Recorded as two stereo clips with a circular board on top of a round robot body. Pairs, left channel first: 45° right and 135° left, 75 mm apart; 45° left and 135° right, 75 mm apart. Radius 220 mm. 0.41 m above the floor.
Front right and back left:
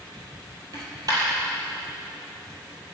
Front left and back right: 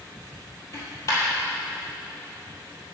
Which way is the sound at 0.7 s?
95° left.